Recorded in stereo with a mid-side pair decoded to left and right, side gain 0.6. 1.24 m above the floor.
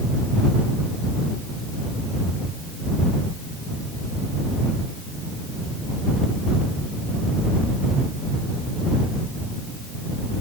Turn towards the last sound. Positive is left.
No sound to turn to.